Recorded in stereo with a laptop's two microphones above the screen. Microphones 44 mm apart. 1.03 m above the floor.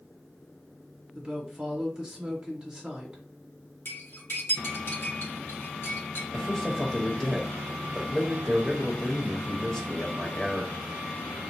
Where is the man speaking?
5° left (ahead or behind), 1.1 m.